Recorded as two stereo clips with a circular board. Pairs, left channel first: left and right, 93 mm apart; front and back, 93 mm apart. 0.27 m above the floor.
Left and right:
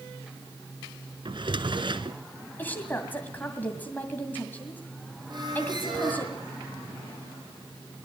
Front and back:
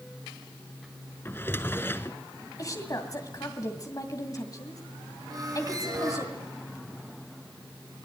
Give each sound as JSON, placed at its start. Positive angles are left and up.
{"t": 1.2, "sound": "a drawer", "azimuth_deg": -65, "distance_m": 1.1}
{"t": 2.6, "sound": "a woman speaking", "azimuth_deg": 30, "distance_m": 2.0}
{"t": 5.3, "sound": "a squeak", "azimuth_deg": -130, "distance_m": 6.0}